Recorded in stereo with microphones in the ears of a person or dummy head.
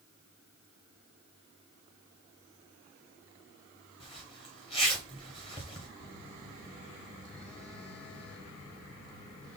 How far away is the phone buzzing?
About 1.7 m.